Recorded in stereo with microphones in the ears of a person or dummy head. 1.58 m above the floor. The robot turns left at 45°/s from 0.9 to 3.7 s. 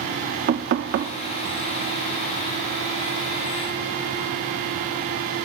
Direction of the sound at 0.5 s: 50° right (ahead or behind).